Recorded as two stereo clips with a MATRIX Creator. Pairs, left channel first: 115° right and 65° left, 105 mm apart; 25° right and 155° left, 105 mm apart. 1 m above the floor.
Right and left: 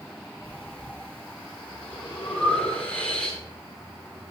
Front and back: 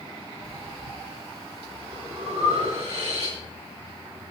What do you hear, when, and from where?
0.4 s breathing: 170° left, 7.5 m